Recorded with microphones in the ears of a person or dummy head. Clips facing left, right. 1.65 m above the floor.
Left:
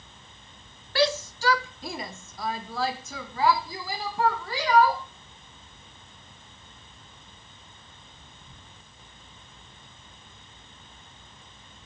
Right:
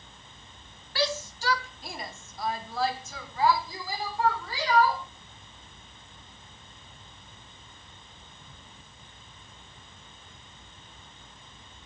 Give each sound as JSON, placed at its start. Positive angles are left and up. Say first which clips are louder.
{"t": 0.9, "sound": "a shout", "louder": "left 5 dB", "side_deg": 50, "distance_m": 0.9}